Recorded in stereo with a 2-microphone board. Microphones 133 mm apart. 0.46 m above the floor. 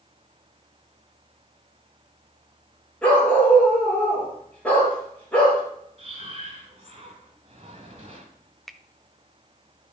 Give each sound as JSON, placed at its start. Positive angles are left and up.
{"t": 3.0, "sound": "a dog barking", "side_deg": 10, "distance_m": 3.5}
{"t": 6.0, "sound": "breathing", "side_deg": -40, "distance_m": 2.0}
{"t": 8.7, "sound": "a finger snap", "side_deg": 0, "distance_m": 0.5}